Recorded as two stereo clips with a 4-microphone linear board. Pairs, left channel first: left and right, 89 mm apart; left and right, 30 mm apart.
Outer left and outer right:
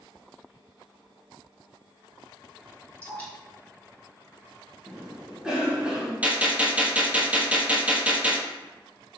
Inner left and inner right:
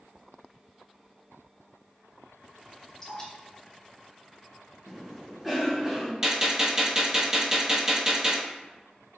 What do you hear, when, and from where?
3.0 s dripping: 20° left (ahead or behind), 1.4 m
4.9 s a cough: 10° right (ahead or behind), 1.2 m
6.2 s a gunshot: 15° right (ahead or behind), 0.6 m